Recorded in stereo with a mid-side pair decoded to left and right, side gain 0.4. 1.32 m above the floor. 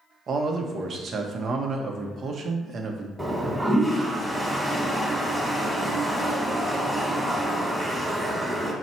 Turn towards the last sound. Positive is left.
turn(degrees=-10)